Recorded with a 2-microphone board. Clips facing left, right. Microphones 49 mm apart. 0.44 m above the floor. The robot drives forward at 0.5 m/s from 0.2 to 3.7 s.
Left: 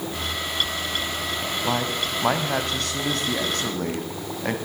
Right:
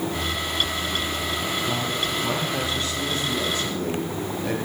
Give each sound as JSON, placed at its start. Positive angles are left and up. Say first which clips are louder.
{"t": 1.6, "sound": "a man speaking", "louder": "left 1 dB", "side_deg": 75, "distance_m": 2.5}